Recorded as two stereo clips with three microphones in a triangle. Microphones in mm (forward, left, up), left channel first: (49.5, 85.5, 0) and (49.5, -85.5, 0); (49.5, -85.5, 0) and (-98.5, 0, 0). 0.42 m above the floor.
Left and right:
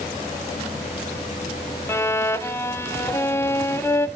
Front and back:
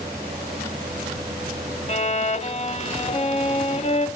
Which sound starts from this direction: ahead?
A violin, at 1.9 s.